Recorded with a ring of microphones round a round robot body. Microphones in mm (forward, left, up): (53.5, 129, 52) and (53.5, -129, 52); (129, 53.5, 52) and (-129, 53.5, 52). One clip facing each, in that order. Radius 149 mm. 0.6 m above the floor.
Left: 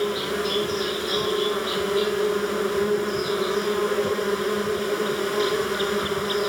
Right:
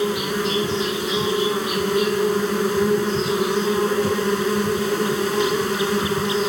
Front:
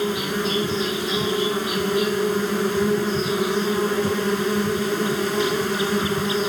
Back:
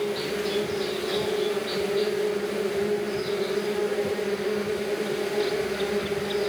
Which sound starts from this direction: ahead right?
An insect, at 0.0 s.